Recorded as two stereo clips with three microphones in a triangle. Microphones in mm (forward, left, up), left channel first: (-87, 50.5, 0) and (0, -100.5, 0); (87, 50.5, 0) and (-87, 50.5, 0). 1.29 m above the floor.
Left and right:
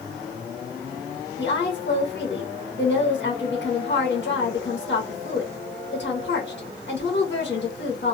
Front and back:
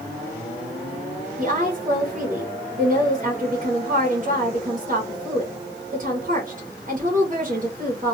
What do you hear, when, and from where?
1.4 s a woman speaking: 135° left, 1.3 m